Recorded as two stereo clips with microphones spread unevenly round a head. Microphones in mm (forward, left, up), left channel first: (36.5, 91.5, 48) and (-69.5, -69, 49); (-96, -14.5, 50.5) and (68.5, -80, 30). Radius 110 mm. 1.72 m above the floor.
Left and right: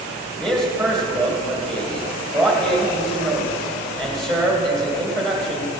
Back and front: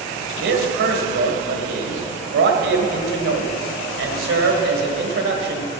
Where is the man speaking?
30° right, 1.9 m.